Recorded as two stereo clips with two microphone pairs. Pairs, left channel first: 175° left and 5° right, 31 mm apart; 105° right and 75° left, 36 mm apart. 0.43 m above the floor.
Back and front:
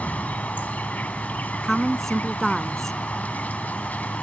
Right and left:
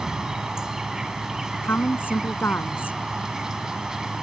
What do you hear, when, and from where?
0.0 s an insect: 145° left
1.6 s a woman speaking: 110° right